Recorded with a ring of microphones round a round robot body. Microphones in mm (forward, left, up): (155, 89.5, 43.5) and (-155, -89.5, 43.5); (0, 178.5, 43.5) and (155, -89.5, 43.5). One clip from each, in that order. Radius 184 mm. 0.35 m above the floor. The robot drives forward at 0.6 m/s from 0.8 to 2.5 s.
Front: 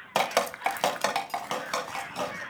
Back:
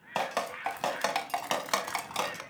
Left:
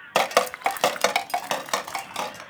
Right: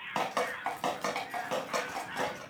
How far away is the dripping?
About 0.6 m.